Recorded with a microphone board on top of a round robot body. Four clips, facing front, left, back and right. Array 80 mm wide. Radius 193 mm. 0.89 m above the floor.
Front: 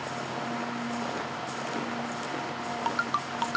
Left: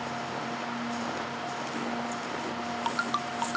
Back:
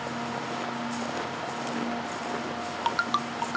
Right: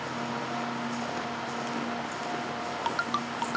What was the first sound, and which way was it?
Only background noise.